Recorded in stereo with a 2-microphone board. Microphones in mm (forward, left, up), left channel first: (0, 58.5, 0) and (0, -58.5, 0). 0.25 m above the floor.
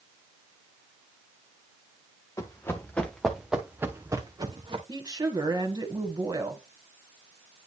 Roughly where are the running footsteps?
Left.